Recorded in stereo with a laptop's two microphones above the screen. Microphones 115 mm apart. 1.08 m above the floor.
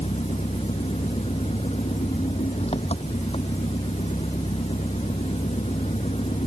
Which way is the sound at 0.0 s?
60° left (ahead or behind).